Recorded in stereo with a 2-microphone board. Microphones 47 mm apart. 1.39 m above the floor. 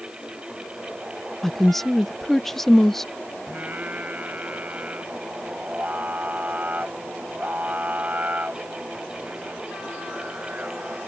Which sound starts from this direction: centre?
A woman speaking, at 1.4 s.